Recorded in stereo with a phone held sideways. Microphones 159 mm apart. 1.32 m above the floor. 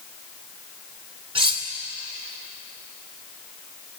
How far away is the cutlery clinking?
About 2.5 m.